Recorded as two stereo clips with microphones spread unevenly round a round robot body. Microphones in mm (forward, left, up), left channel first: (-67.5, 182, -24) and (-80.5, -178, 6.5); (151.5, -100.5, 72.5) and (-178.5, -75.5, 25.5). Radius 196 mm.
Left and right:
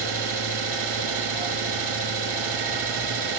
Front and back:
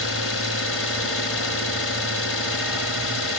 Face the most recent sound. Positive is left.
turn(degrees=-55)